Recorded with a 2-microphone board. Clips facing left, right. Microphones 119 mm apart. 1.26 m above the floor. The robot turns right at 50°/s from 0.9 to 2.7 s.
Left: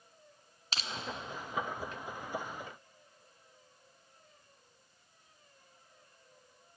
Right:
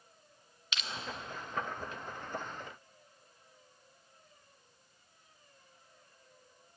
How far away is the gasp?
I don't hear a gasp.